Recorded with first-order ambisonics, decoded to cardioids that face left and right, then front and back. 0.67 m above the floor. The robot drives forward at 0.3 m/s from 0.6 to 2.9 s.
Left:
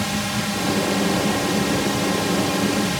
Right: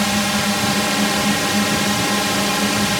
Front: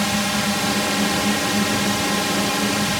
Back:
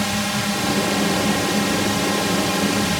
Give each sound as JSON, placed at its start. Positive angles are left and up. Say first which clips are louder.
{"t": 0.0, "sound": "a drone", "louder": "right 6 dB, front 1 dB", "azimuth_deg": -75}